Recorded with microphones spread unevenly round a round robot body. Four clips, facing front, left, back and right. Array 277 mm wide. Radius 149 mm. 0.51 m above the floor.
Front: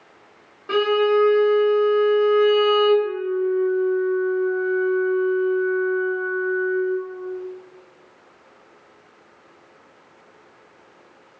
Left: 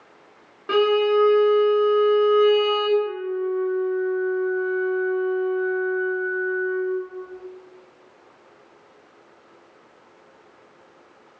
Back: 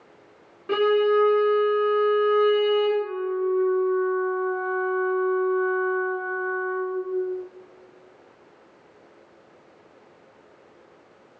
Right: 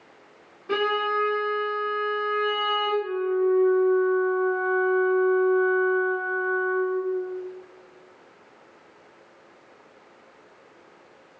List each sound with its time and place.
0.7 s a violin: 80° left, 1.1 m
3.0 s a flute: 130° right, 0.6 m